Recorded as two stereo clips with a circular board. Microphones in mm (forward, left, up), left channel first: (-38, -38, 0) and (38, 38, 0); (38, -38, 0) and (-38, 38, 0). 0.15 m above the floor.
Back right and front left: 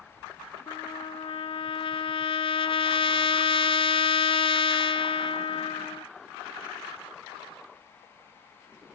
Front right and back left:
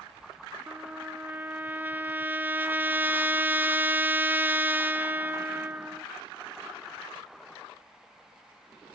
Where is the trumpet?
155° right, 0.7 m.